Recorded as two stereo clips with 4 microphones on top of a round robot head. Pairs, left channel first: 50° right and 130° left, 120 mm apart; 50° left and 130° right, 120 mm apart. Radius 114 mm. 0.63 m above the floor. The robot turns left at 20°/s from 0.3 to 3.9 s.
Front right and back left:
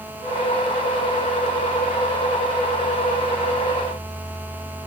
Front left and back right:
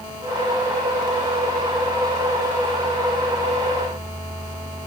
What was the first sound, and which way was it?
Only background noise.